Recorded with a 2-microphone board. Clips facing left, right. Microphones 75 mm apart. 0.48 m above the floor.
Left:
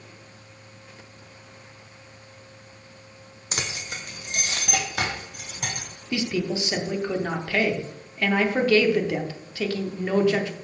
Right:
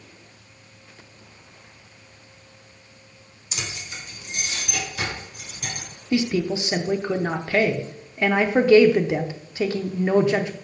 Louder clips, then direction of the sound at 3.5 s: Left 2 dB; 55° left (ahead or behind).